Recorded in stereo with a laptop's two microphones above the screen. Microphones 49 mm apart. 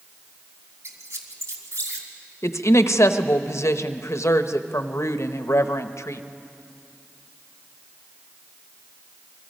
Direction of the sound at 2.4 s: 65° left (ahead or behind).